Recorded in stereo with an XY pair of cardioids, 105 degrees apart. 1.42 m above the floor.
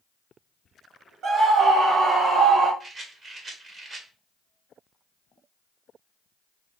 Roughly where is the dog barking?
No dog barking in this recording.